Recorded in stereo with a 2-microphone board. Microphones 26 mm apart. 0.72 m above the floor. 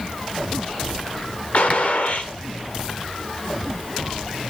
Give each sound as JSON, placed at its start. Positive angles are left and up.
{"t": 1.5, "sound": "a gunshot", "side_deg": 55, "distance_m": 1.8}